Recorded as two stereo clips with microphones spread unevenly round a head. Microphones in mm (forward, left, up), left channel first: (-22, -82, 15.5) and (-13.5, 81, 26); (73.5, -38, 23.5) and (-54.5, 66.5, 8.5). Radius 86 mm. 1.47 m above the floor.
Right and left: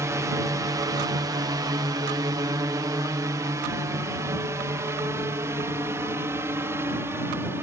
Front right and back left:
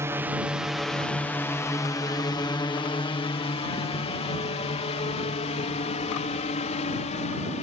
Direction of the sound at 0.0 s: 135° left.